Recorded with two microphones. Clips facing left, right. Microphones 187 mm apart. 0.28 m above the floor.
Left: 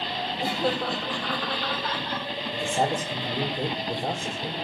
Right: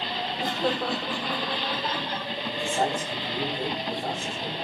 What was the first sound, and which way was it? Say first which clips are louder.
Laughter: left 1 dB; 10° left (ahead or behind).